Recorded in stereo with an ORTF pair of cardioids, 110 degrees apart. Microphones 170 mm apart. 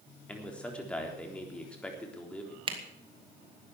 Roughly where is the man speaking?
Ahead.